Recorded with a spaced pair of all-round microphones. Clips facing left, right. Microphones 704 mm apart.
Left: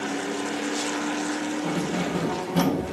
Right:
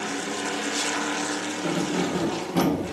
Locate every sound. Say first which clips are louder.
1.6 s keys jangling: right 1 dB; 5° left (ahead or behind), 2 m; by 2.8 s 30° left (ahead or behind), 2 m